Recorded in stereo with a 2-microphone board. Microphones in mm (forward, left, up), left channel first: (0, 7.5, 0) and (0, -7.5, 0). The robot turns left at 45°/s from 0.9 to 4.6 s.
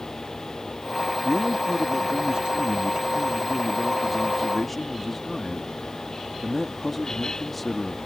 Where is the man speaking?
40° right; by 8.0 s 170° left.